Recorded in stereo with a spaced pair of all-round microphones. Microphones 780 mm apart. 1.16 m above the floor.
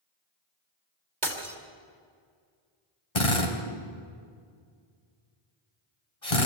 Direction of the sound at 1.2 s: 65° right (ahead or behind).